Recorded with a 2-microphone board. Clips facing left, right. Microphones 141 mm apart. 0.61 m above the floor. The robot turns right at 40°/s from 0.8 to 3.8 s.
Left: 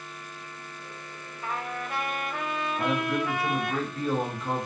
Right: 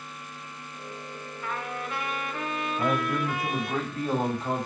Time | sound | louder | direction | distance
1.4 | a trumpet | left 1 dB | 30° left | 0.6 m
2.8 | a man speaking | right 1 dB | 165° right | 1.7 m